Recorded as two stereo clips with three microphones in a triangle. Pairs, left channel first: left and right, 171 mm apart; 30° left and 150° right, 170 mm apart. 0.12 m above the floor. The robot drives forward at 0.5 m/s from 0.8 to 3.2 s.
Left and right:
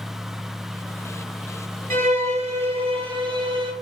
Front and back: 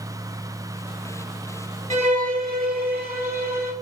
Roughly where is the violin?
Behind right.